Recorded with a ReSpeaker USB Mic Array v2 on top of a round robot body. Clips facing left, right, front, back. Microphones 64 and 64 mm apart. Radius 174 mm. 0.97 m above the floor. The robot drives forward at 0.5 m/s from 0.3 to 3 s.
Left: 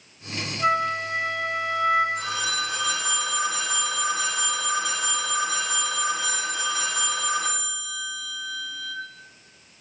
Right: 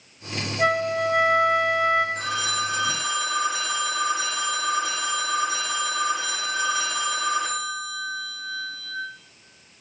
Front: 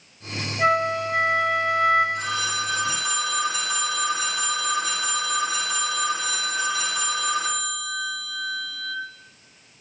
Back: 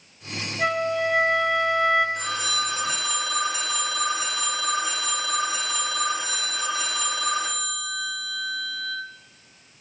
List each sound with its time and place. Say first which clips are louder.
0.6 s a flute: right 1 dB, front 3 dB; 75° right, 2 m; by 2.0 s 100° right, 2 m
2.1 s a phone ringing: right 1 dB, front 1 dB; 130° right, 2.5 m; by 8.9 s 135° right, 3 m